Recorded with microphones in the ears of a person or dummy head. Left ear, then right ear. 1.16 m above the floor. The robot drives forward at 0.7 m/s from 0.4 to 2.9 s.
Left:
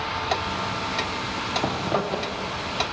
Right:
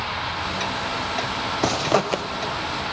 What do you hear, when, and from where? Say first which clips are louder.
1.6 s a zipper: right 4 dB; 80° right, 0.7 m; by 2.2 s 60° right (ahead or behind), 0.8 m